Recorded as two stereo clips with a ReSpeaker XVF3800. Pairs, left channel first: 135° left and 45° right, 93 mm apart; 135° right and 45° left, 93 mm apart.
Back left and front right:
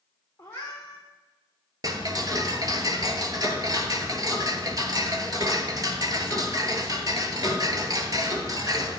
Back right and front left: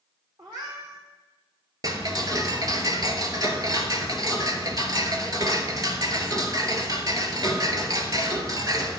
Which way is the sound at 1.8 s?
Straight ahead.